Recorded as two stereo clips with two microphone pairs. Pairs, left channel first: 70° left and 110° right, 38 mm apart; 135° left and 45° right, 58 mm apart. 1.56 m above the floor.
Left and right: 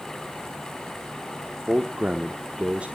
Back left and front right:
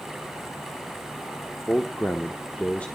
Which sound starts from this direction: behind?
A man speaking, at 1.7 s.